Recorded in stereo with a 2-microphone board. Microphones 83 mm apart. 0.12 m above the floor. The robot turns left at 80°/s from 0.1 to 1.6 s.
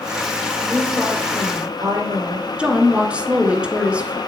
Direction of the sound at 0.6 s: 25° left.